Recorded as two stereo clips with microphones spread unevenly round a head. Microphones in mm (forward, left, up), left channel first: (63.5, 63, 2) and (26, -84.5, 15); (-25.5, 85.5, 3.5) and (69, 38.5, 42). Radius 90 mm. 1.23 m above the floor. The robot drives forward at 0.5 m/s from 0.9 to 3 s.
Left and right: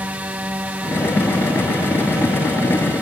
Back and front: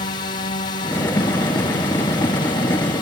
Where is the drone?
175° left.